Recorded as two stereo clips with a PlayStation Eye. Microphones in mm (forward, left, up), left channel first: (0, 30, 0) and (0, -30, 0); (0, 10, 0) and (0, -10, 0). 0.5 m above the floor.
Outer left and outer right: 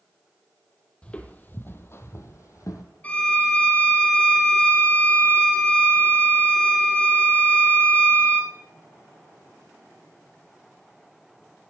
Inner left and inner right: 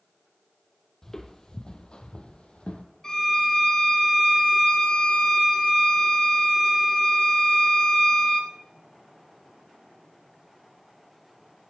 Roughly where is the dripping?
I don't hear dripping.